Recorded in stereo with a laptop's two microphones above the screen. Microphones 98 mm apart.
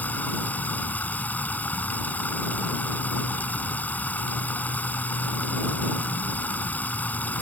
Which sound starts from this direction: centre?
Running water, at 0.0 s.